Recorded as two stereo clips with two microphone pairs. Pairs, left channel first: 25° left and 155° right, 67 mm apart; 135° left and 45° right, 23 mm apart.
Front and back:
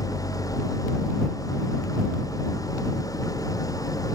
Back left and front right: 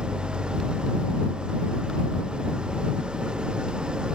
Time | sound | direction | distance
0.0 | an engine running | 5° right | ?